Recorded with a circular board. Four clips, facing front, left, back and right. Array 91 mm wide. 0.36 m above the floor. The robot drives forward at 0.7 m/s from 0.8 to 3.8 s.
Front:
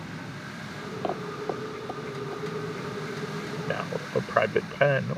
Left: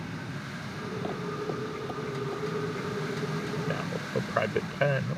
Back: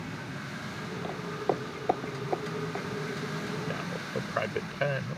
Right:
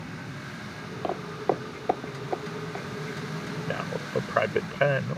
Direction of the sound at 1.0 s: 35° right.